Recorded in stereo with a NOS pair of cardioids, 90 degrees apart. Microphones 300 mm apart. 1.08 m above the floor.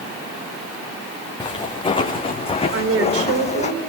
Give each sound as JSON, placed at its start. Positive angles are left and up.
{"t": 1.4, "sound": "footsteps", "azimuth_deg": 15, "distance_m": 5.0}
{"t": 2.7, "sound": "a woman speaking", "azimuth_deg": -50, "distance_m": 4.0}